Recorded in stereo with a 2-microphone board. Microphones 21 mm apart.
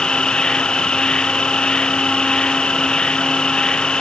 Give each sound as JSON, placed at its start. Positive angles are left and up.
{"t": 0.0, "sound": "an insect", "side_deg": 40}